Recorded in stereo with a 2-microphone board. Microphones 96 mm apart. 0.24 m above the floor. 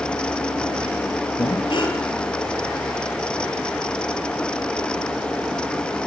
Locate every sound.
1.4 s breathing: 60° left (ahead or behind), 4 m